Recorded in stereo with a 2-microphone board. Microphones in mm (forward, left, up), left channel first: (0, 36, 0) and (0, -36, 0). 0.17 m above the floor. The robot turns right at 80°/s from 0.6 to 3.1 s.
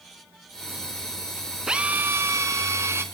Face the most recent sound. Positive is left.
turn(degrees=-50)